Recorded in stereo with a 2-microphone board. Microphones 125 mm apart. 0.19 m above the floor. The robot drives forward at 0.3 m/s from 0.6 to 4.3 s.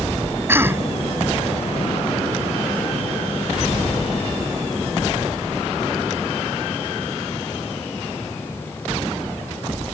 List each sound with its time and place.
0.5 s a cough: 20° right (ahead or behind)